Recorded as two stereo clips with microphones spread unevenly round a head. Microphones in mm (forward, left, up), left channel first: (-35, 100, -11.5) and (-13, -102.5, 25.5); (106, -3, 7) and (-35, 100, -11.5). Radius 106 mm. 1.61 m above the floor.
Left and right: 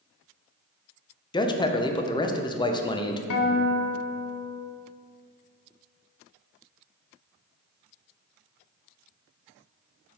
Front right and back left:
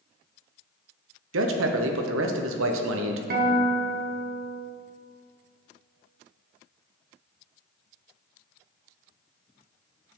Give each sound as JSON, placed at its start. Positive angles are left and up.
{"t": 1.3, "sound": "a man speaking", "azimuth_deg": 165, "distance_m": 0.7}
{"t": 3.3, "sound": "a guitar", "azimuth_deg": 110, "distance_m": 0.9}